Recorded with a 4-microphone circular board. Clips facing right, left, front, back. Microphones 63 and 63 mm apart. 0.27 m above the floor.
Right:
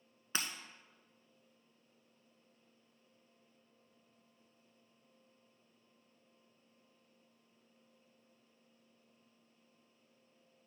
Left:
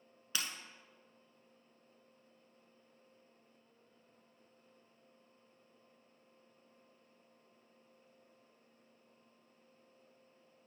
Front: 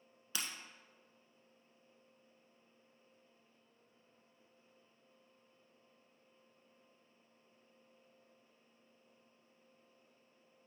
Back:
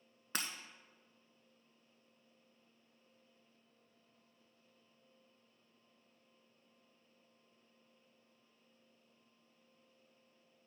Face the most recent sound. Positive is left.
turn(degrees=-145)